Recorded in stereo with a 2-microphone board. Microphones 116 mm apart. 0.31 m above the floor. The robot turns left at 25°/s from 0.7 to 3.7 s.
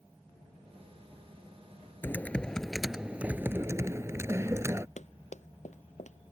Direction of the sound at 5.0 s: 80° left.